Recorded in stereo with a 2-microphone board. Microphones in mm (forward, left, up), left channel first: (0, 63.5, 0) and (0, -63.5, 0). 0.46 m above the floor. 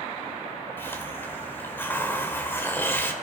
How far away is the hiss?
About 1.5 m.